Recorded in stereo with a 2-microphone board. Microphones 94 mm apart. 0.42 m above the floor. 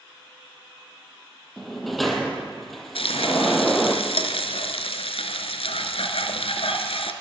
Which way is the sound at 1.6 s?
Centre (ahead or behind).